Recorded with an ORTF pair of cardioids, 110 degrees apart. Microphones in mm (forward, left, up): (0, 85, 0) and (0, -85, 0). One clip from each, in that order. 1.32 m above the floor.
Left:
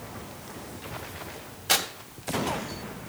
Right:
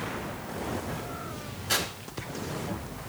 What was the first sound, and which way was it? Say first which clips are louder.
Tearing paper: left 3 dB; 65° left.